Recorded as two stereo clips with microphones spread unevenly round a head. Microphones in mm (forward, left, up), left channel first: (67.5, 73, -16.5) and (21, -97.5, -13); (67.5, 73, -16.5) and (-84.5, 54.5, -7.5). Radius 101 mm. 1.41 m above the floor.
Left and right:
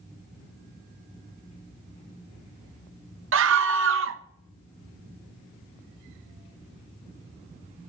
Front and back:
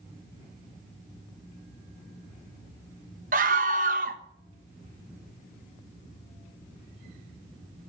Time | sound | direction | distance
3.3 | a scream | 125° right | 1.2 m